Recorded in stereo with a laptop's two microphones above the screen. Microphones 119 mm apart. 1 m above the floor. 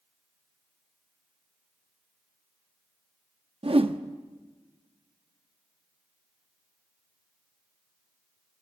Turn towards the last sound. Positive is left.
turn(degrees=-50)  # may be behind; listen again after turning